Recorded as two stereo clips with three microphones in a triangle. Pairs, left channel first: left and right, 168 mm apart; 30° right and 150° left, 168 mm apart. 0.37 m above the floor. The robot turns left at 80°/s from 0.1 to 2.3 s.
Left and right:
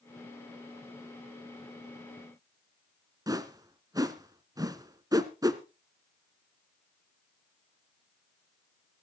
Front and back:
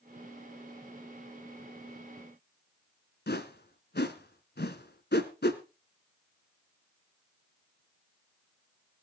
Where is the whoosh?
20° right, 1.1 m.